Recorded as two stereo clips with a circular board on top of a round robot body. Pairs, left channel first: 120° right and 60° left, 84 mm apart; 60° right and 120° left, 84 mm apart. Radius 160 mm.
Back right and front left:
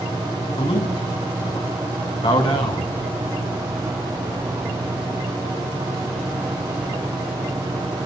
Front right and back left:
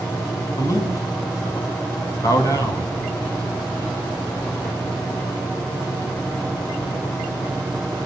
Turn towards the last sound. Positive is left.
turn(degrees=-110)